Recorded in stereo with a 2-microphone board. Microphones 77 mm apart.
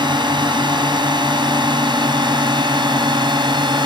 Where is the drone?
80° right; by 3.9 s 75° right (ahead or behind).